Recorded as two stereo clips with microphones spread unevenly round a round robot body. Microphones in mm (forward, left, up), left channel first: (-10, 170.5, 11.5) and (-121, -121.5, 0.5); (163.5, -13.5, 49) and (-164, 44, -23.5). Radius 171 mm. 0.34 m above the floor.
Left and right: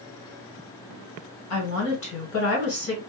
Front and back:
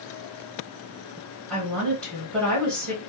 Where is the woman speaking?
85° left, 1.6 m.